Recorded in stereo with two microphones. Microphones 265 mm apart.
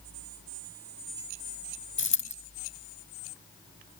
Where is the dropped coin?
45° left (ahead or behind), 0.6 m.